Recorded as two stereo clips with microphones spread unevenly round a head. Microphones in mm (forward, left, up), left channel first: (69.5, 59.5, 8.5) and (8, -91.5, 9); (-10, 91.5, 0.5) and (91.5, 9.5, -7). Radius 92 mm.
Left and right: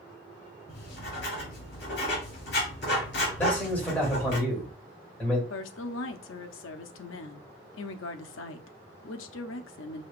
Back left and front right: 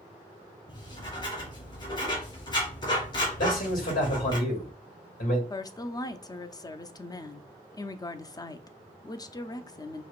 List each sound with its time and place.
0.7 s writing: 100° left, 3 m
3.4 s a man speaking: 150° left, 2.5 m
5.5 s a woman speaking: 75° left, 0.6 m